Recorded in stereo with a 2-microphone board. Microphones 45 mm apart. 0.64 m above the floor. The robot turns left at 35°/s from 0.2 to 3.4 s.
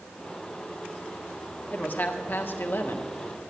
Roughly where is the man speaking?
Behind left.